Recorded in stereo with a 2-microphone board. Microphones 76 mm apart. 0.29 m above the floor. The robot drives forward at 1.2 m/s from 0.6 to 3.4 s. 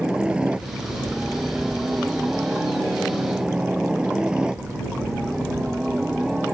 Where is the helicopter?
10° right (ahead or behind).